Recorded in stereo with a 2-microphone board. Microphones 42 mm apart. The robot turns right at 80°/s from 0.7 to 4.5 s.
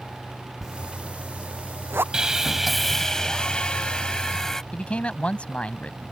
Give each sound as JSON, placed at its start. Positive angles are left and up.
{"t": 0.6, "sound": "a zipper", "side_deg": 0}
{"t": 2.1, "sound": "sawing", "side_deg": -15}
{"t": 4.7, "sound": "a man speaking", "side_deg": 35}